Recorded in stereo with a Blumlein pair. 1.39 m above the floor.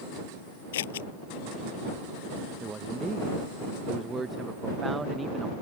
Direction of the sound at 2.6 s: 15° right.